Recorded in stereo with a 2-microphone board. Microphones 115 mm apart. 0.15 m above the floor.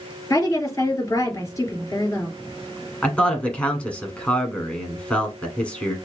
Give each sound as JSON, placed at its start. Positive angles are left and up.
{"t": 0.3, "sound": "a woman speaking", "side_deg": 30, "distance_m": 2.5}
{"t": 3.0, "sound": "a man speaking", "side_deg": 10, "distance_m": 1.2}